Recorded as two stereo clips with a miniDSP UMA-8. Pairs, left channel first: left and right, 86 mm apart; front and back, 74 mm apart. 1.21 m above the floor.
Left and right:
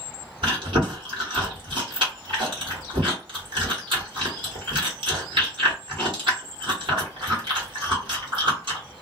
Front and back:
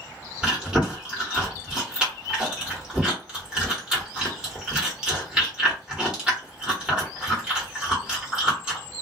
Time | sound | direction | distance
0.4 | chewing | 100° right | 1.5 m